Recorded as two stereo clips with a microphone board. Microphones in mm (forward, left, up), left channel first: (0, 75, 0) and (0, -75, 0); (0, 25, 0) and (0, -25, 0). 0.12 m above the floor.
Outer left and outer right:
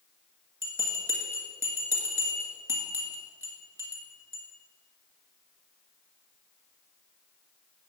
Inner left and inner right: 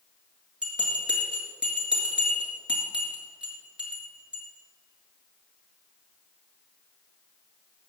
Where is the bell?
15° right (ahead or behind), 2.5 m.